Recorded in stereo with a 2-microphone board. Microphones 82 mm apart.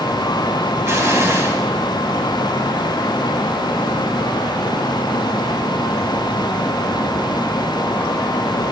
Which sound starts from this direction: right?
An explosion, at 0.8 s.